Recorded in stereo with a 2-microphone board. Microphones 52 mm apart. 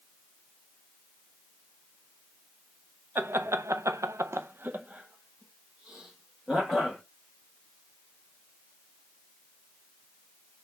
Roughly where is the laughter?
Right.